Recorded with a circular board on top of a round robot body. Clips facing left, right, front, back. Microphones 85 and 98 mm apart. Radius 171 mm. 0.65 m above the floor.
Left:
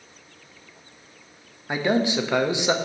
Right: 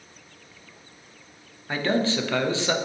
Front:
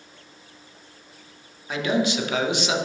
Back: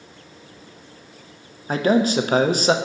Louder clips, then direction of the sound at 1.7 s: Left 2 dB, back 5 dB; 155° left.